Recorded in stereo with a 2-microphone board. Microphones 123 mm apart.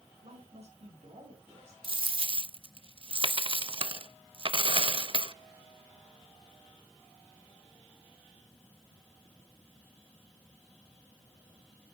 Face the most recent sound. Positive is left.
turn(degrees=-45)  # may be behind; listen again after turning